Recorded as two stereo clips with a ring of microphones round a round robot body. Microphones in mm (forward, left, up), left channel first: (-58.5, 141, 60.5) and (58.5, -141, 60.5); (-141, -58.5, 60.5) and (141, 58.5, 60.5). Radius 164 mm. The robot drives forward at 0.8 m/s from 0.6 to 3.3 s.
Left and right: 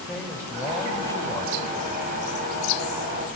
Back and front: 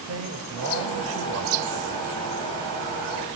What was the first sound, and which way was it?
A man speaking, 30° left.